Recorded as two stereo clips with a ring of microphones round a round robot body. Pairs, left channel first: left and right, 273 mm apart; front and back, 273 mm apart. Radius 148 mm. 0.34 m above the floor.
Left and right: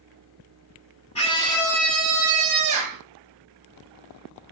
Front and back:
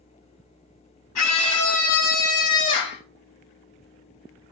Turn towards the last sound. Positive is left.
turn(degrees=-45)